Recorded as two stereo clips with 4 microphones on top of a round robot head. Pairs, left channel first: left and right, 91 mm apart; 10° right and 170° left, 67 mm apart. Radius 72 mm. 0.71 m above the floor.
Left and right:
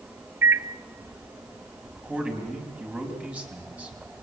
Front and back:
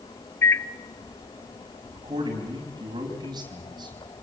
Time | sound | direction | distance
0.4 | a microwave | 40° right | 0.7 m
1.9 | a man speaking | 165° right | 5 m